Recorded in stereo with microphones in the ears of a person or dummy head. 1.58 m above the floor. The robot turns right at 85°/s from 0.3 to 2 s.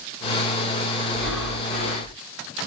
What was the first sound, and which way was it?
Breathing, 60° left.